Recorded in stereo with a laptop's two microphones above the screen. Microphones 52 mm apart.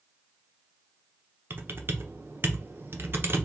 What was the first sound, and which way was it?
Typing on a keyboard, 50° right (ahead or behind).